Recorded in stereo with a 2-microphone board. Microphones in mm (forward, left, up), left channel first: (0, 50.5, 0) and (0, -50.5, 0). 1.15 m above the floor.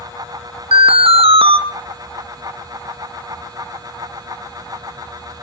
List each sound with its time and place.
0.7 s an alarm: 70° right (ahead or behind), 0.6 m